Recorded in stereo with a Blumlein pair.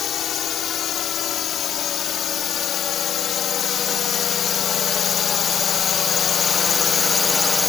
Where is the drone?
30° left; by 7.7 s 10° left.